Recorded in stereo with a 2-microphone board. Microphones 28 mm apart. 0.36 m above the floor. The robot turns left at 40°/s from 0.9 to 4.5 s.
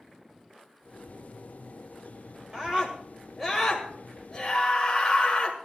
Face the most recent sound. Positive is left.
turn(degrees=145)